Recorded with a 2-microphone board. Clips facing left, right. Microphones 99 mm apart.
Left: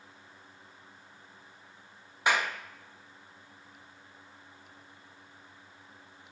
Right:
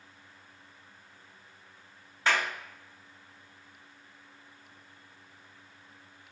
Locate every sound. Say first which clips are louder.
2.3 s a clap: left 1 dB; 15° left (ahead or behind), 0.6 m